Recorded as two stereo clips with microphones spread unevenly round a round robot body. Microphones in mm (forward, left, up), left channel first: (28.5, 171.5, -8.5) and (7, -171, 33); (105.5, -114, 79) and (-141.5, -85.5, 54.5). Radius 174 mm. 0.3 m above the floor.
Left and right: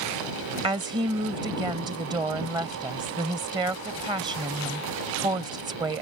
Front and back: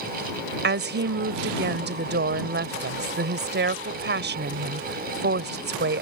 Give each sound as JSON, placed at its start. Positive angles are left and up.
{"t": 0.6, "sound": "a woman speaking", "azimuth_deg": -175}